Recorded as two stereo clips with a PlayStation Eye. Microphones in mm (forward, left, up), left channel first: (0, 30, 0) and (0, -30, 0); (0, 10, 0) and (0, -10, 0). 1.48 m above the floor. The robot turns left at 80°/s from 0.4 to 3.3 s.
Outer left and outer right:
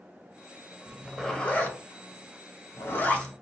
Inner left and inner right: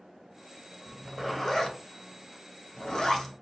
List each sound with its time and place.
0.9 s a zipper: 25° right (ahead or behind), 0.8 m; by 3.3 s 10° left (ahead or behind), 0.8 m